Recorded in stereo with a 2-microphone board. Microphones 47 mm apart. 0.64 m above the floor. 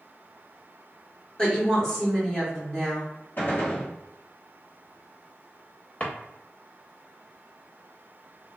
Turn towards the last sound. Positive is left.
turn(degrees=30)  # may be behind; listen again after turning